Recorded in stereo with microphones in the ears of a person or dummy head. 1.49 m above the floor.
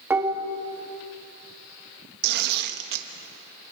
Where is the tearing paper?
60° right (ahead or behind), 1.5 m.